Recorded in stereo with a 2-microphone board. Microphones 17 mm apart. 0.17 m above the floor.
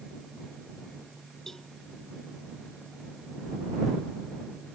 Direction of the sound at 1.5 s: 25° left (ahead or behind).